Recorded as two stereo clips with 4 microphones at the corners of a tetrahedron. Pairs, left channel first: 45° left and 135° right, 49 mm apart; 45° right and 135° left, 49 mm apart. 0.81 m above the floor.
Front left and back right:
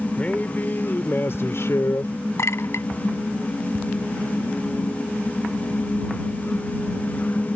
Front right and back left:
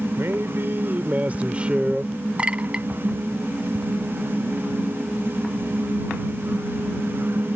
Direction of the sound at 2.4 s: 65° left.